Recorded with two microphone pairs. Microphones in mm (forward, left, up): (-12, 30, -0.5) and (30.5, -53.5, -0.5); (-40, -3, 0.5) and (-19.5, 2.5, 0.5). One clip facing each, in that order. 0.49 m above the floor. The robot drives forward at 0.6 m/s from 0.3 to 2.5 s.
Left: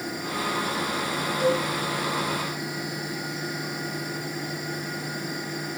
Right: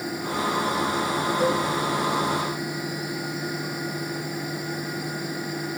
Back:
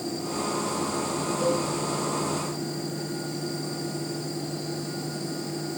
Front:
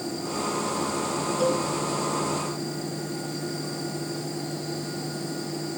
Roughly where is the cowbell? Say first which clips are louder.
Left 1 dB, front 1 dB; ahead.